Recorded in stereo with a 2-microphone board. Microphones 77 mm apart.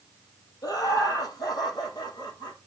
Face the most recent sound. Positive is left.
turn(degrees=65)  # may be behind; listen again after turning